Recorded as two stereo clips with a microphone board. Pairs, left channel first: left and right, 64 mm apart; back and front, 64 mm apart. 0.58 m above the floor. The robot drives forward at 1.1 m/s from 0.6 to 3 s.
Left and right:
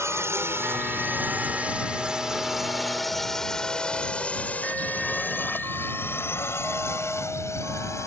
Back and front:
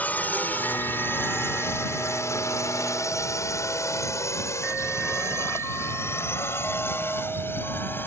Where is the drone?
120° right; by 8.1 s 125° left.